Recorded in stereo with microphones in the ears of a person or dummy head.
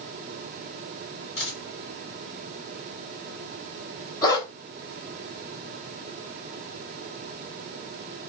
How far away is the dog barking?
About 1.7 m.